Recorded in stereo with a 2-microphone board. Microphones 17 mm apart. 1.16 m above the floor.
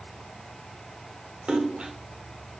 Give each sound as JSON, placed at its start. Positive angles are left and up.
{"t": 1.5, "sound": "a splash", "side_deg": -85, "distance_m": 2.5}